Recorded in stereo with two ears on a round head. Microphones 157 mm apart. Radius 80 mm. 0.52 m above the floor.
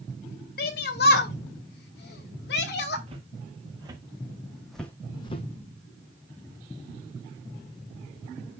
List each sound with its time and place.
0.6 s a shout: 60° left (ahead or behind), 2 m
3.1 s footsteps: 35° right (ahead or behind), 3 m; by 5.5 s 40° left (ahead or behind), 1.3 m